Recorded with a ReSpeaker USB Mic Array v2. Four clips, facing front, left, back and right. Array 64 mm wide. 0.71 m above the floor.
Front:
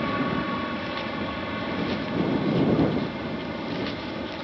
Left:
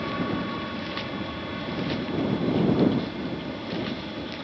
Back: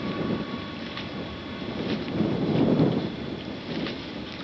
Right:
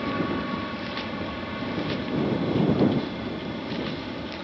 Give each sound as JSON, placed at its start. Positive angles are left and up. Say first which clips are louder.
{"t": 0.0, "sound": "an aircraft", "louder": "right 1 dB, front 3 dB", "azimuth_deg": -5}